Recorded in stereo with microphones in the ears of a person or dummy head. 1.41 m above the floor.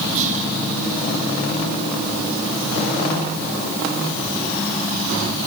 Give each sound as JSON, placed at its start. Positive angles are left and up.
{"t": 0.1, "sound": "whispering", "side_deg": -45, "distance_m": 0.7}